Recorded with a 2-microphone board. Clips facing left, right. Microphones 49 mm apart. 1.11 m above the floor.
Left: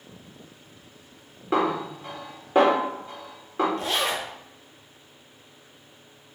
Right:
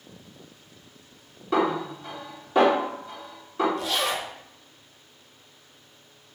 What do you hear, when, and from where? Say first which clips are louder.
1.5 s a snare drum: even; 30° left (ahead or behind), 1.9 m
3.8 s a zipper: left 1 dB; 35° left (ahead or behind), 0.7 m